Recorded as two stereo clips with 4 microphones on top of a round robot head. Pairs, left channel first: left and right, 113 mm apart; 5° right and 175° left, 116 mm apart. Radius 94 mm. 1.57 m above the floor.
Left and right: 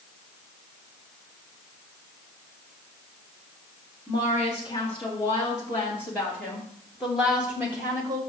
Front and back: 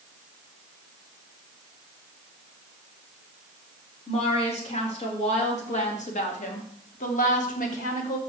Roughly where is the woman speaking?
Ahead left.